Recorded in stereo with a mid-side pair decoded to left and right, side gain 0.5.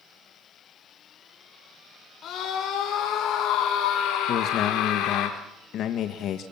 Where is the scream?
55° left, 5 m; by 5.3 s 75° left, 4 m.